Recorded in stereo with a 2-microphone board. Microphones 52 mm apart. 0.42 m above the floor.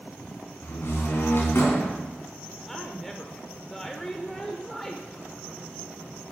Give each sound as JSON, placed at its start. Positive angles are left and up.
{"t": 0.6, "sound": "a door slam", "side_deg": 55, "distance_m": 3.0}
{"t": 2.6, "sound": "a woman speaking", "side_deg": 10, "distance_m": 0.8}